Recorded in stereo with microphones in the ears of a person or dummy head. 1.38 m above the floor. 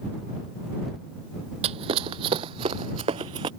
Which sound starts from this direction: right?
Running footsteps, at 1.6 s.